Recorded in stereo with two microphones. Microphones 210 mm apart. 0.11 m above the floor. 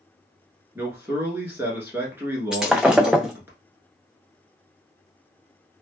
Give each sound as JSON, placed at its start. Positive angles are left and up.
{"t": 0.8, "sound": "a man speaking", "side_deg": -10, "distance_m": 1.2}
{"t": 2.5, "sound": "breaking glass", "side_deg": -5, "distance_m": 0.5}